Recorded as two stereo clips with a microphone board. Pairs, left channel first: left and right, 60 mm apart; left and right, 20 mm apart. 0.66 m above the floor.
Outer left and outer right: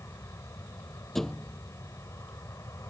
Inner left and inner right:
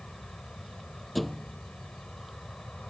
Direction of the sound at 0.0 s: 60° left (ahead or behind).